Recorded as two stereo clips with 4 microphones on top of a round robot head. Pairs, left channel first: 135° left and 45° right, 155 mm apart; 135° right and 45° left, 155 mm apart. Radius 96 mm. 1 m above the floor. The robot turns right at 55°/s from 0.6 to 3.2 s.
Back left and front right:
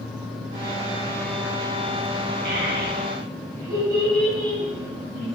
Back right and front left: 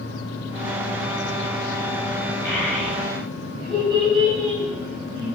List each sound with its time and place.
2.5 s a child speaking: 55° right, 5 m; by 5.2 s 15° right, 5 m